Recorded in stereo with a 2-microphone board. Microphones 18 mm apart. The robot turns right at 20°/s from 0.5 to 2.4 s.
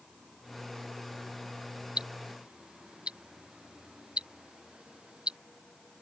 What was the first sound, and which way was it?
Ticking, 85° right.